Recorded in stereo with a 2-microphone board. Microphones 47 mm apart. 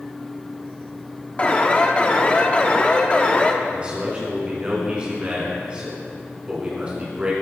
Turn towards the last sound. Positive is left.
turn(degrees=-25)  # may be behind; listen again after turning